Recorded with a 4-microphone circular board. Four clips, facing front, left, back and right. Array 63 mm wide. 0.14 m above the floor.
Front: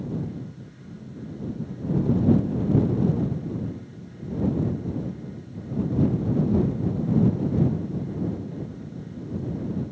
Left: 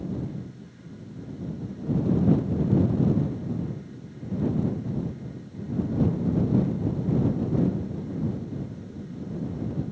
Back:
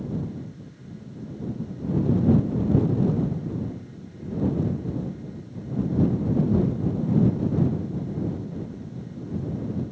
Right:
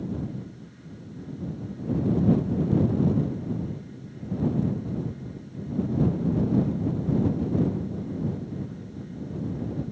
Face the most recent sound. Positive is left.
No sound to turn to.